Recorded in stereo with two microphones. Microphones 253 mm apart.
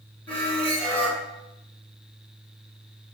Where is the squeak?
5° left (ahead or behind), 1.9 m.